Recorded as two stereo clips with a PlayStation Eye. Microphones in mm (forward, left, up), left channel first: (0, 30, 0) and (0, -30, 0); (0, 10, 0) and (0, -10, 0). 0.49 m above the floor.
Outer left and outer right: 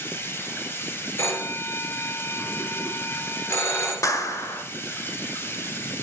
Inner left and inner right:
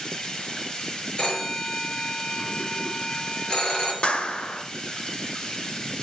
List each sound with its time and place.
0.0 s running water: 35° left (ahead or behind), 1.9 m
1.2 s a phone ringing: 40° left (ahead or behind), 4.5 m
4.0 s a clap: 60° left (ahead or behind), 1.5 m